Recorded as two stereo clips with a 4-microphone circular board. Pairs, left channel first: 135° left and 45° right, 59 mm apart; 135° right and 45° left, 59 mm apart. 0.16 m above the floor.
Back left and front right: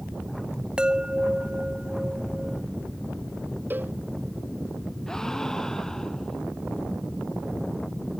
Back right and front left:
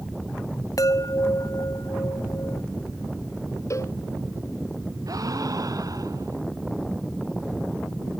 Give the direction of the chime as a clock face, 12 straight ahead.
4 o'clock.